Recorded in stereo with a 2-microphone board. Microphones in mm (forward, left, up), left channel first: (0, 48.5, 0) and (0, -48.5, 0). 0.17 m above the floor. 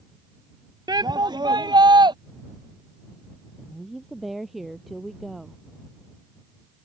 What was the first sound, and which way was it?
A shout, 45° right (ahead or behind).